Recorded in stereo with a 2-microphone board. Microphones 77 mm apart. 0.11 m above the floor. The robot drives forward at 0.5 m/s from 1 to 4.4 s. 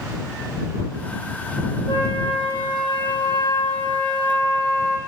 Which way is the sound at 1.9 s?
75° left (ahead or behind).